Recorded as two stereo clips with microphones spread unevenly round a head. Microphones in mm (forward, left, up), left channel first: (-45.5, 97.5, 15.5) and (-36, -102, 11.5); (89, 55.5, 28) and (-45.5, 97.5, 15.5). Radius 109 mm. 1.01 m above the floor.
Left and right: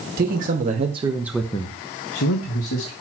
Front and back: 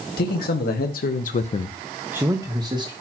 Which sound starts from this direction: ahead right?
A man speaking, at 0.2 s.